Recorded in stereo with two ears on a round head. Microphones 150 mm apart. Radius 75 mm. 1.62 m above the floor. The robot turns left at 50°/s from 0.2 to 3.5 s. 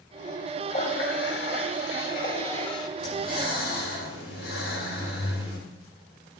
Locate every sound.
0.7 s a running tap: 135° left, 1.8 m; by 2.9 s 25° left, 1.8 m
3.0 s breathing: 50° left (ahead or behind), 6.5 m; by 5.6 s 75° left (ahead or behind), 6.5 m